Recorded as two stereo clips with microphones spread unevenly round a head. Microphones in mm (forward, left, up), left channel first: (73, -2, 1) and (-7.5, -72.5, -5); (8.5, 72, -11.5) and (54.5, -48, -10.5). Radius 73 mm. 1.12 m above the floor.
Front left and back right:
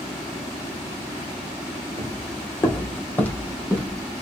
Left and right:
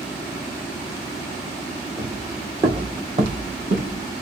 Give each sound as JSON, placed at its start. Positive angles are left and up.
{"t": 2.0, "sound": "footsteps", "azimuth_deg": 0, "distance_m": 1.8}